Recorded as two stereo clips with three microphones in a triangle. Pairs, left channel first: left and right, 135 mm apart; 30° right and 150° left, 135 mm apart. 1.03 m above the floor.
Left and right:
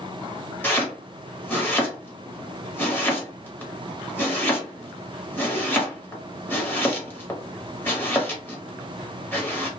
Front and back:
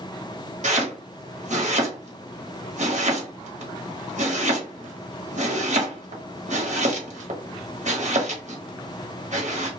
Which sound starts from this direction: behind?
Chopping, at 0.6 s.